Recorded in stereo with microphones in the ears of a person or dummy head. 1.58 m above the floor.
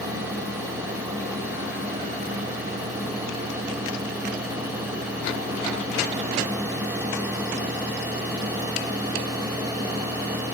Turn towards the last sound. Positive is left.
No sound to turn to.